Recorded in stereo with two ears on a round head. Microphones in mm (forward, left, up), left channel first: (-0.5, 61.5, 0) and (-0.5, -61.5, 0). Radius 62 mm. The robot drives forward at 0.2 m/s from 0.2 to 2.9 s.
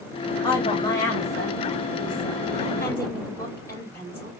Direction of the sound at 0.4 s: 15° left (ahead or behind).